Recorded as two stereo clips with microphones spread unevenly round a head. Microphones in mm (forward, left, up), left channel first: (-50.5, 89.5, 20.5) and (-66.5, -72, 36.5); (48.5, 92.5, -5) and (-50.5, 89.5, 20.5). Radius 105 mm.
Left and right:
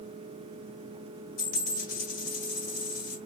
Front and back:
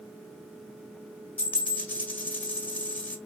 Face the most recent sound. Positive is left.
turn(degrees=85)